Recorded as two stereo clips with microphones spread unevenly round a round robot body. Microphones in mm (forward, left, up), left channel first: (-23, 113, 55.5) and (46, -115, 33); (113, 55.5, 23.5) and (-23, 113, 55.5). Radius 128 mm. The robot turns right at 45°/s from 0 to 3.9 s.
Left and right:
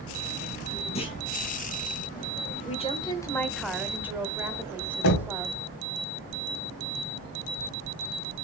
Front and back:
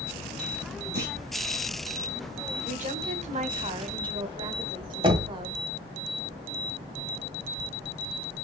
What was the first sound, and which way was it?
A clunk, 170° left.